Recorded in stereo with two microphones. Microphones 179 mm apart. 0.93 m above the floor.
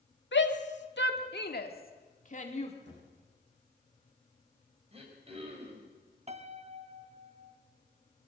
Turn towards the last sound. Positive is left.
turn(degrees=-35)  # may be behind; listen again after turning